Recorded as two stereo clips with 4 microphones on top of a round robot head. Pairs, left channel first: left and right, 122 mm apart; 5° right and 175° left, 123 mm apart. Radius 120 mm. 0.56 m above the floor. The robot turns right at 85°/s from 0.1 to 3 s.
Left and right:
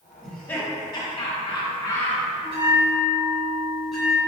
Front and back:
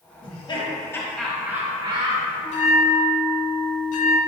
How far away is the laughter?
About 1.5 m.